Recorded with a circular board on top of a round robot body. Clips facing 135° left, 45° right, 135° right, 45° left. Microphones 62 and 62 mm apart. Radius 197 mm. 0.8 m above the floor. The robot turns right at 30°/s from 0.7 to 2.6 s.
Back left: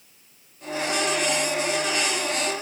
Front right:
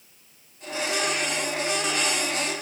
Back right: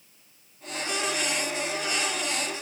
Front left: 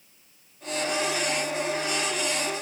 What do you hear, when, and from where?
Only background noise.